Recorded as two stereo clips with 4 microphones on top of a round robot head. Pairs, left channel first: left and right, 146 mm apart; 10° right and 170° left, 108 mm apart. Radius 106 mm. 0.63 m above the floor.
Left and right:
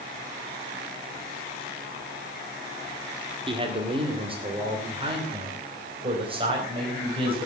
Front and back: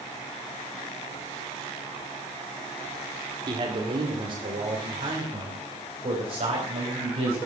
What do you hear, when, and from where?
3.5 s a man speaking: 140° right, 2 m; by 7.4 s 145° right, 5 m